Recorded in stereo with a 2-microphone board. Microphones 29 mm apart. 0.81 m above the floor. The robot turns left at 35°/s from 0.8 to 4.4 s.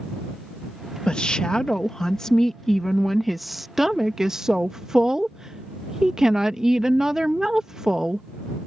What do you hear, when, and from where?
1.1 s a woman speaking: 80° left; by 8.3 s 40° right